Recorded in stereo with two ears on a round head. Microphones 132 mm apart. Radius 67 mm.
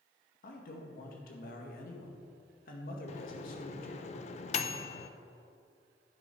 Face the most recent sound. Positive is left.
turn(degrees=45)  # may be behind; listen again after turning